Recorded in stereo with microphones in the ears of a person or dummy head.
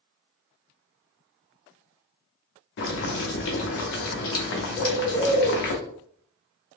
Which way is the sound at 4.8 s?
20° left (ahead or behind).